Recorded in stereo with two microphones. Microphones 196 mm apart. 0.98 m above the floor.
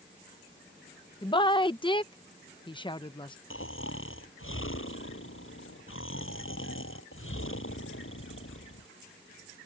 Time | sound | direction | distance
1.2 | a woman speaking | 25° left (ahead or behind) | ?
3.5 | snoring | 90° left | ?